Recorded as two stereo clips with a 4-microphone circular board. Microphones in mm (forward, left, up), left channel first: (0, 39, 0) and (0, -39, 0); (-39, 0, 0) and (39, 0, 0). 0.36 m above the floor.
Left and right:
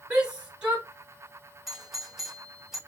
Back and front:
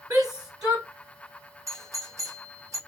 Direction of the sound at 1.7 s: 10° right.